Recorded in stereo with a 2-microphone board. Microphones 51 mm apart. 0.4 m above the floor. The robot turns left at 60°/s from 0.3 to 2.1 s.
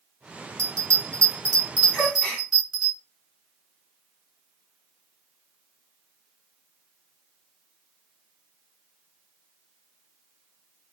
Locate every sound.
0.6 s a bell: 80° right, 2 m; by 2.9 s 10° right (ahead or behind), 2 m
1.9 s a gasp: 5° left (ahead or behind), 2.5 m; by 2.5 s 15° left (ahead or behind), 2.5 m